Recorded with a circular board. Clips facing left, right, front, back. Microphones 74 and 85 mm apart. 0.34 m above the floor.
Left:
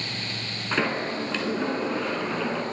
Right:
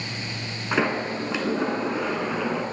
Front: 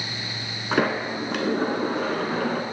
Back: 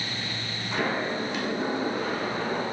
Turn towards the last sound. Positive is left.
turn(degrees=-15)